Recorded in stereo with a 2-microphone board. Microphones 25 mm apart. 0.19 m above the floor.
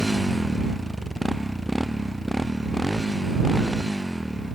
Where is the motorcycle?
10° left (ahead or behind); by 4.5 s 5° left (ahead or behind).